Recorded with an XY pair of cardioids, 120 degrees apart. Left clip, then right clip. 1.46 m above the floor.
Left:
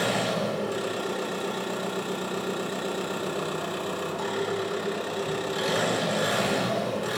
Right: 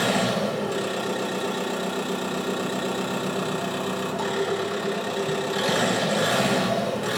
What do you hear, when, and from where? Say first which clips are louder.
0.0 s an engine running: right 3 dB; 20° right, 3.5 m